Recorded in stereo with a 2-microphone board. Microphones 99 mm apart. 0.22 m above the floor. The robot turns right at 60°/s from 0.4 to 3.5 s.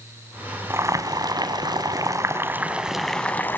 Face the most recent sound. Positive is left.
turn(degrees=30)